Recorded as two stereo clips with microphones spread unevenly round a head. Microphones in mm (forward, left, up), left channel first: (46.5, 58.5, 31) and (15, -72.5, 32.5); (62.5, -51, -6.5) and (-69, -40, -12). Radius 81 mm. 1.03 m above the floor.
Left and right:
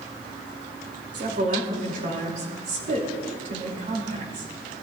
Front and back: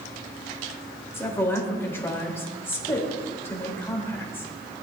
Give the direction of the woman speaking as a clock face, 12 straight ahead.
3 o'clock.